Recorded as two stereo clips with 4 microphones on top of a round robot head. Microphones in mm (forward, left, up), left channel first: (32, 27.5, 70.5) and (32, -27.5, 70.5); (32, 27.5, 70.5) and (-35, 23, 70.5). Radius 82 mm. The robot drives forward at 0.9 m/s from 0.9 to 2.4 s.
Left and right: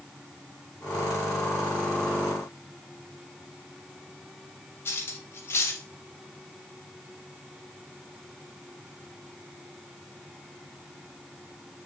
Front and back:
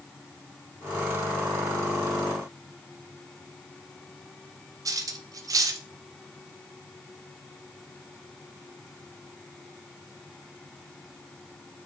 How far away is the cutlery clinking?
About 0.6 m.